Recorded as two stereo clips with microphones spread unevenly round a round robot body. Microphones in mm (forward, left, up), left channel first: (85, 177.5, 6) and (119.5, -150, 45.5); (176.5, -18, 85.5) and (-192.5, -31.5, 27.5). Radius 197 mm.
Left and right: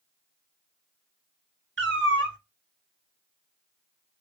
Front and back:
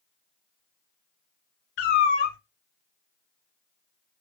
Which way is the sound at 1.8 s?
25° right.